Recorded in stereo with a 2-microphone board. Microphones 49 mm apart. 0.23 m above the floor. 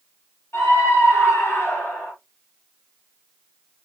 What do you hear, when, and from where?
0.5 s a scream: 75° left (ahead or behind), 4 m; by 2.1 s 65° left (ahead or behind), 3 m